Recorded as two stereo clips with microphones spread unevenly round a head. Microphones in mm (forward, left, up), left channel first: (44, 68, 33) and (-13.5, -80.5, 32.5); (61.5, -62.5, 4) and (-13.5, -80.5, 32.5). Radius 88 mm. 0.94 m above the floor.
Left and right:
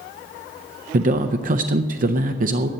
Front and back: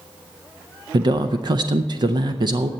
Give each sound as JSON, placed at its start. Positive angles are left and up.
{"t": 0.9, "sound": "a man speaking", "azimuth_deg": -130, "distance_m": 0.6}